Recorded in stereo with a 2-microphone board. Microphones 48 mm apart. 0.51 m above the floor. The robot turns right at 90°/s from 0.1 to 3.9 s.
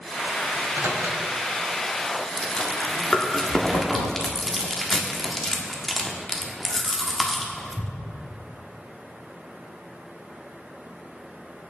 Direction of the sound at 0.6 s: 70° right (ahead or behind).